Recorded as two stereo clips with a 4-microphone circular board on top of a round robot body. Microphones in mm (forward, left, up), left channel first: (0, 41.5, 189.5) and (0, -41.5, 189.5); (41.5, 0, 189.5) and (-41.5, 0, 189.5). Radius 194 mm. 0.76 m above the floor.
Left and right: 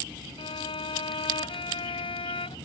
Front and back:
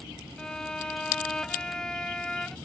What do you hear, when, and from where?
0.4 s a violin: 80° left